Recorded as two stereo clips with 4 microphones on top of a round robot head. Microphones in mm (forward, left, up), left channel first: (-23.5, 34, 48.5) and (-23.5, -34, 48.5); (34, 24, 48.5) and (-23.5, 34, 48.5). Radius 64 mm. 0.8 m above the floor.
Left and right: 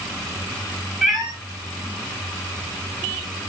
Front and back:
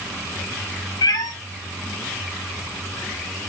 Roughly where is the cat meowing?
Ahead.